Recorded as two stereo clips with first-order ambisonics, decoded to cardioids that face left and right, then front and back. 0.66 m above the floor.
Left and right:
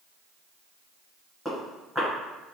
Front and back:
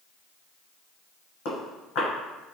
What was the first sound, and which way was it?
Footsteps, straight ahead.